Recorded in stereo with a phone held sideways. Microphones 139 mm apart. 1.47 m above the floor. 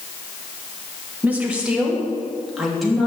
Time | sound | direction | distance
1.2 | a woman speaking | 10° right (ahead or behind) | 2 m